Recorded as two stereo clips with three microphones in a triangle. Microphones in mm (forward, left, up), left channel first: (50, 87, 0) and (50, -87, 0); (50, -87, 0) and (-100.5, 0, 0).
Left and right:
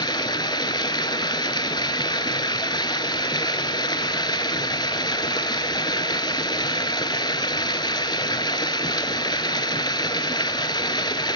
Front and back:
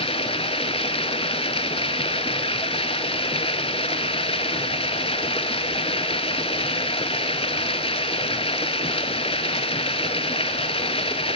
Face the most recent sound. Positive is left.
turn(degrees=25)